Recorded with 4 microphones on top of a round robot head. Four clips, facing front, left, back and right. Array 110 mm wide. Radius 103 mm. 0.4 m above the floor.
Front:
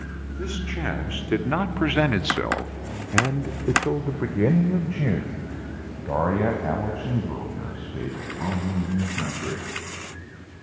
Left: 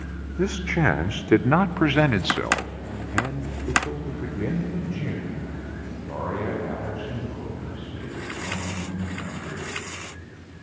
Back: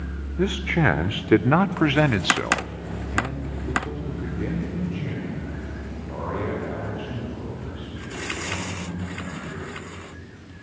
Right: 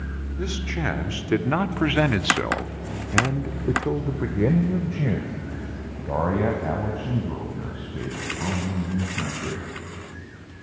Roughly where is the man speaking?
Behind left.